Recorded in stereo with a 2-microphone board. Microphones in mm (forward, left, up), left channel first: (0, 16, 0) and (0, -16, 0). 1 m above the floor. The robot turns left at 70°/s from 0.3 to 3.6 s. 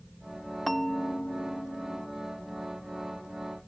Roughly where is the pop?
No pop in this recording.